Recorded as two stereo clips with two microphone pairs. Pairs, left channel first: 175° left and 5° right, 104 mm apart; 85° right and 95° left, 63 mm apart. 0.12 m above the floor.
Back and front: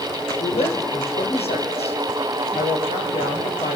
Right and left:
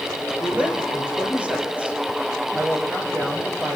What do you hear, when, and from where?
0.4 s a woman speaking: 160° left, 6 m